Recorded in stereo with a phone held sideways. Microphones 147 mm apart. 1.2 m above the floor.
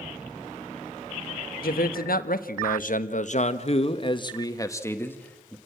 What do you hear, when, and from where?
1.6 s a man speaking: 85° left, 1.5 m; by 5.6 s 10° left (ahead or behind), 1.7 m